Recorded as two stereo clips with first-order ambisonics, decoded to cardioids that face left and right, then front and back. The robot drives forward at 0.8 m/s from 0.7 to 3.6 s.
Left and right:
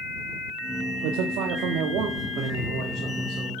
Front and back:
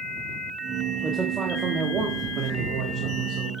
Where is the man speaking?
100° right, 1.7 m; by 3.5 s 145° right, 3 m.